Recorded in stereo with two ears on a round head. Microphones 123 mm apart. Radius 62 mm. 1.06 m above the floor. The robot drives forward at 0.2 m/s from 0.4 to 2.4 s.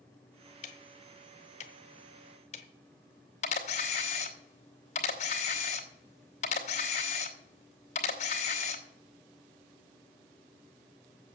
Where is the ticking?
55° left (ahead or behind), 1.3 m; by 2.7 s 50° left (ahead or behind), 1.4 m.